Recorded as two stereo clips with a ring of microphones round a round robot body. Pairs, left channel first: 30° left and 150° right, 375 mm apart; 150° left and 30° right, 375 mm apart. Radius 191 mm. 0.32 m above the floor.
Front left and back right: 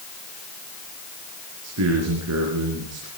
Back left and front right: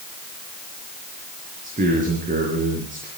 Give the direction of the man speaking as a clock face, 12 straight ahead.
3 o'clock.